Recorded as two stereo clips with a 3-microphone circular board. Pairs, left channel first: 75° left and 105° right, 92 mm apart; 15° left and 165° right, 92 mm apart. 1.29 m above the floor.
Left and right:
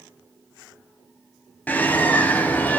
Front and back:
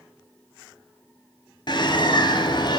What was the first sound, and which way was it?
A bird, 5° left.